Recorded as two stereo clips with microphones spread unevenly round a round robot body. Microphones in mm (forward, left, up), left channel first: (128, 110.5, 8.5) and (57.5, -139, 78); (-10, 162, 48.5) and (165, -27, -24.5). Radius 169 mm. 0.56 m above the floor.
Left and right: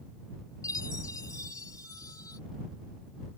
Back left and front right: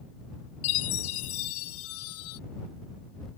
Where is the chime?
155° left.